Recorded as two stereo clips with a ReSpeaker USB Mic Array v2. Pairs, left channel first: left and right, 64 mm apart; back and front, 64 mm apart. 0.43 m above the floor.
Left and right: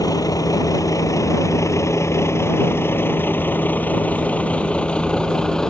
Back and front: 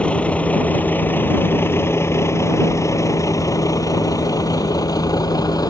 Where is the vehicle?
110° left; by 5.7 s 170° left.